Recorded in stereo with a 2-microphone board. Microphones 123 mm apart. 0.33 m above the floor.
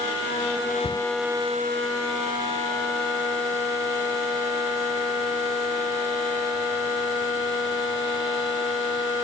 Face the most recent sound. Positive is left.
turn(degrees=55)  # may be behind; listen again after turning